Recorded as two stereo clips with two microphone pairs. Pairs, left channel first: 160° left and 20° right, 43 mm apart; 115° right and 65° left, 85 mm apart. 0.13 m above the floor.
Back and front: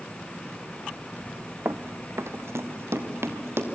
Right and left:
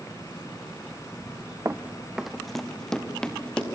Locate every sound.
1.6 s running footsteps: 10° left, 0.7 m; by 3.7 s 35° right, 3.5 m